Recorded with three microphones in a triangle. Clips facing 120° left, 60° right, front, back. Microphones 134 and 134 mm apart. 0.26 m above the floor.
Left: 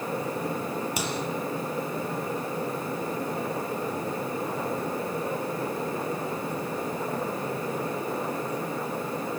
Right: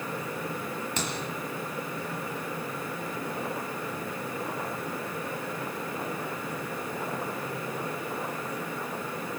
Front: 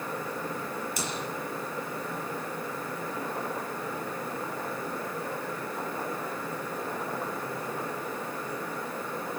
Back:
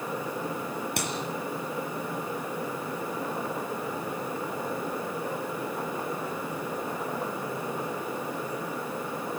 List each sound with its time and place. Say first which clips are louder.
1.0 s a clap: left 2 dB, back 2 dB; 160° right, 5.5 m